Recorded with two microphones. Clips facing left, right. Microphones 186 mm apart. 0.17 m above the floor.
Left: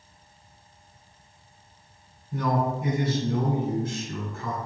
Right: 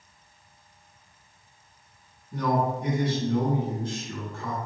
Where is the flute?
No flute in this recording.